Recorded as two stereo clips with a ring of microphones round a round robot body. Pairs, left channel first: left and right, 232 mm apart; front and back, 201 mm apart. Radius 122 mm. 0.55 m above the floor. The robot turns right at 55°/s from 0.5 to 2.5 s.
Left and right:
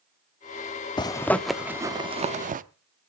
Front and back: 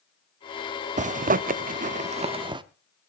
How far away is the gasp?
I don't hear a gasp.